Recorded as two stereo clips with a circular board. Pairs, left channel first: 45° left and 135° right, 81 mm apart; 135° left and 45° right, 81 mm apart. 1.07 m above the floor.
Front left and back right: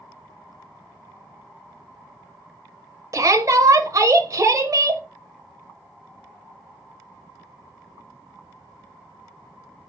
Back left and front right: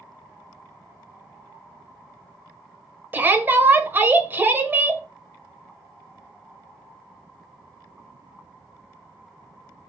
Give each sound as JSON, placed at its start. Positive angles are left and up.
{"t": 3.1, "sound": "a shout", "azimuth_deg": -105, "distance_m": 0.6}